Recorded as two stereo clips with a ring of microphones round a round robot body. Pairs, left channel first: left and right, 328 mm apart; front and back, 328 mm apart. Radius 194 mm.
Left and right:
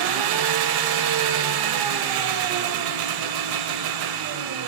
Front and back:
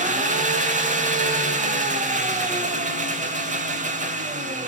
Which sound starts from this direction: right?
An engine running, at 0.0 s.